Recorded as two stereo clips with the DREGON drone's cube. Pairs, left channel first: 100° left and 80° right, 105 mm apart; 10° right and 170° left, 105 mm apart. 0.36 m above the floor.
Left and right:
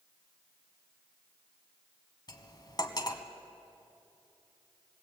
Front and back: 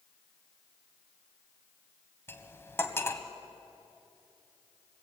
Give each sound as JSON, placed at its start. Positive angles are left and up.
{"t": 2.3, "sound": "cutlery clinking", "azimuth_deg": 55, "distance_m": 1.6}